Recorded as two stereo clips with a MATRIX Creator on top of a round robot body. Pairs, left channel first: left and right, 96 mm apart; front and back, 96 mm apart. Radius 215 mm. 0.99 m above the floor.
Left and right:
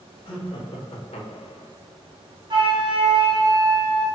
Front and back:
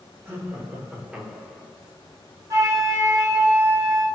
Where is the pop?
I don't hear a pop.